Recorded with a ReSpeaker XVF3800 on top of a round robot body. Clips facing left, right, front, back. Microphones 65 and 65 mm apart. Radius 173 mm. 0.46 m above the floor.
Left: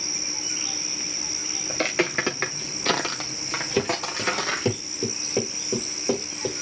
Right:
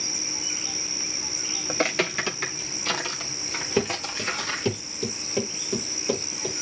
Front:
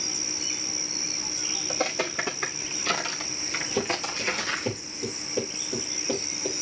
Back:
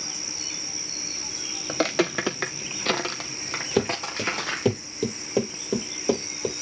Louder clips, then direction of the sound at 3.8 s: Left 1 dB, back 4 dB; 175° right.